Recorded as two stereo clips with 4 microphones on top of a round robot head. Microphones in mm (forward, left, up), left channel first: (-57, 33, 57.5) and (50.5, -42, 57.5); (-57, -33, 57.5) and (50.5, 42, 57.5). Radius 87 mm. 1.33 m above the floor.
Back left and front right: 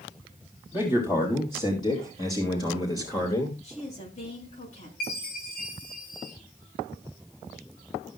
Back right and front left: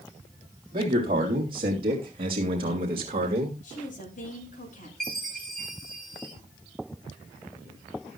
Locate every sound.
0.7 s a man speaking: 85° left, 3.5 m; by 3.5 s 80° left, 1.9 m
3.6 s a woman speaking: 175° right, 7 m
5.0 s a chime: 125° left, 9 m